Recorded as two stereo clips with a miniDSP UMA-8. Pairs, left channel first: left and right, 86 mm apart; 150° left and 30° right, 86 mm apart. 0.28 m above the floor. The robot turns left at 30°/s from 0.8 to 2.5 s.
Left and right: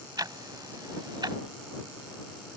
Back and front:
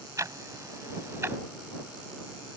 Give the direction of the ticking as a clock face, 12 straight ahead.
2 o'clock.